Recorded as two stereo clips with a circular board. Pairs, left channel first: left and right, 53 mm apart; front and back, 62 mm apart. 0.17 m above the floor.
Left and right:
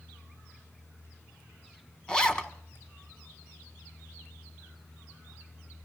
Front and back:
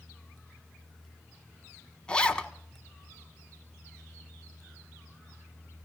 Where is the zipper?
45° left, 1.2 m.